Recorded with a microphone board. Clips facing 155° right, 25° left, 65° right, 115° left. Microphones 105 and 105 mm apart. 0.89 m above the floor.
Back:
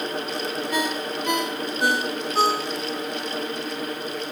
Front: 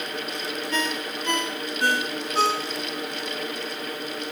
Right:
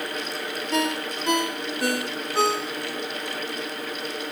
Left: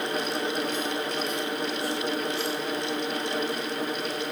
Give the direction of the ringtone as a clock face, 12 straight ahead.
3 o'clock.